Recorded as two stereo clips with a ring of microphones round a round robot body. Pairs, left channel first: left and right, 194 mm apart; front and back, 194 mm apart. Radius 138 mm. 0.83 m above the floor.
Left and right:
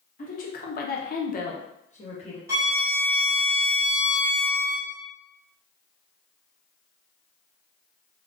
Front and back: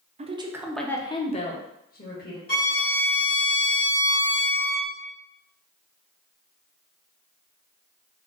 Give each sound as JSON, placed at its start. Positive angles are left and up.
{"t": 0.2, "sound": "a woman speaking", "azimuth_deg": 135, "distance_m": 0.5}
{"t": 2.5, "sound": "a violin", "azimuth_deg": -20, "distance_m": 1.4}